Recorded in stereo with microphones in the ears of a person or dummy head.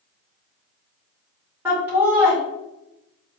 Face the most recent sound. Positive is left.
turn(degrees=-10)  # may be behind; listen again after turning